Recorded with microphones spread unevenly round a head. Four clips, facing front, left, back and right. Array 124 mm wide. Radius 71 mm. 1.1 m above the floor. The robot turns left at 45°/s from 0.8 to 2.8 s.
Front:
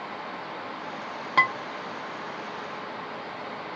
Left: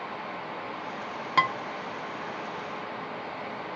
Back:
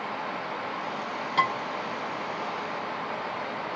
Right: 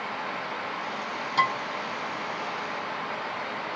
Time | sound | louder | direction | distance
1.4 | dishes clattering | even, front 1 dB | 25° left | 1.1 m